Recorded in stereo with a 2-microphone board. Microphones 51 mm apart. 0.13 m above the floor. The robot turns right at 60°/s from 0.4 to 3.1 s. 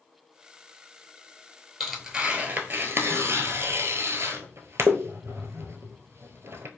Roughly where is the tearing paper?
Centre.